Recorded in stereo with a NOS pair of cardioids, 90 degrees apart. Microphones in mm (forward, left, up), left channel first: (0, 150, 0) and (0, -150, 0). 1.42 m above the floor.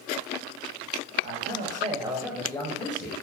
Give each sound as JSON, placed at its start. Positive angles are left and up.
{"t": 1.2, "sound": "a man speaking", "azimuth_deg": -45, "distance_m": 0.8}